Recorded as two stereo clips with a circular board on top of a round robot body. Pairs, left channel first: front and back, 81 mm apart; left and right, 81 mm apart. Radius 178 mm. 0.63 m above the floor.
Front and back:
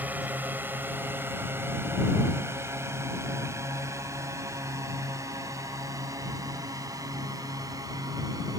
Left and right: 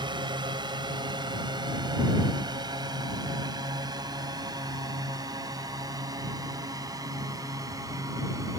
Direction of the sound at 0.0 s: 110° right.